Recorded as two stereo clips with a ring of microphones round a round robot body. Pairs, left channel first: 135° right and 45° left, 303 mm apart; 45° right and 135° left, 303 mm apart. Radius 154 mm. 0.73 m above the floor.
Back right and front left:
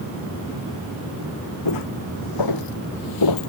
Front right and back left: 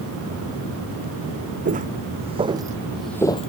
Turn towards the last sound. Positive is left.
turn(degrees=-110)